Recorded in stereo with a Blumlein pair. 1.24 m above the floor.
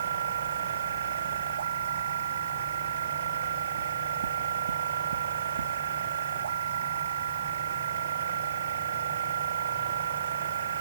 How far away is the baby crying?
I don't hear a baby crying.